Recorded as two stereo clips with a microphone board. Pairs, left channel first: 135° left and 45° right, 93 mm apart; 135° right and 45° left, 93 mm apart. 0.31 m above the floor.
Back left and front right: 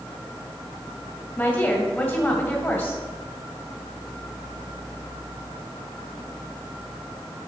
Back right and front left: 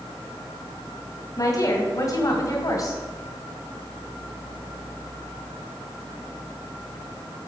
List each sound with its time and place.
1.4 s a woman speaking: 145° right, 1.8 m